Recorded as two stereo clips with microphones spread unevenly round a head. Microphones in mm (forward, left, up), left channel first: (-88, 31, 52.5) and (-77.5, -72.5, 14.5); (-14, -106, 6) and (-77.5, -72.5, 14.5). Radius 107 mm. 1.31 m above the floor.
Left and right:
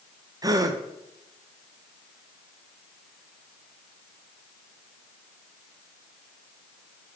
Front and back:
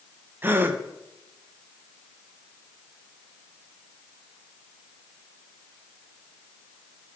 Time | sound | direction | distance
0.4 | a gasp | 145° right | 0.7 m